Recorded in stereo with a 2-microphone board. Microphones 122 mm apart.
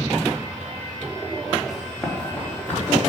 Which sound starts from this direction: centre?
Running footsteps, at 1.7 s.